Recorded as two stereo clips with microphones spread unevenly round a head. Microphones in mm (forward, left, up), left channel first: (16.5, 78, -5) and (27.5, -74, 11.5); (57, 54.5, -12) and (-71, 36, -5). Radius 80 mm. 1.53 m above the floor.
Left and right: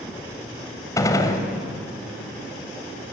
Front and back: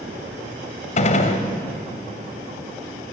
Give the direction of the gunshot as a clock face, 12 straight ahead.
11 o'clock.